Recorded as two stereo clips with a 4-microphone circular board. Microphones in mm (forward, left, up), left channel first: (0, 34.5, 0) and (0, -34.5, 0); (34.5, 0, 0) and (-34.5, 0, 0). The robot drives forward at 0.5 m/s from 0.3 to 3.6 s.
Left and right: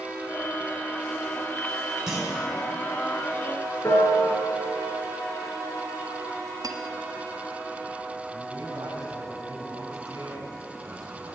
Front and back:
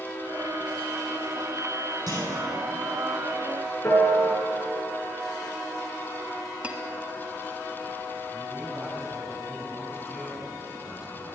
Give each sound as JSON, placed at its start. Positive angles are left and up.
{"t": 2.1, "sound": "a clunk", "azimuth_deg": -170, "distance_m": 4.0}
{"t": 3.8, "sound": "a piano", "azimuth_deg": 55, "distance_m": 4.0}
{"t": 6.6, "sound": "cutlery clinking", "azimuth_deg": -110, "distance_m": 1.4}
{"t": 8.3, "sound": "a man speaking", "azimuth_deg": -105, "distance_m": 5.0}